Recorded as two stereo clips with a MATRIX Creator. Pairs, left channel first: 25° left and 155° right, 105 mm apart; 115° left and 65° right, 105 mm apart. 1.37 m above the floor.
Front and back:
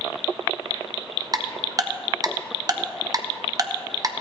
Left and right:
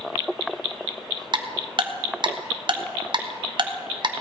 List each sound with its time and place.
1.3 s ticking: 105° right, 0.9 m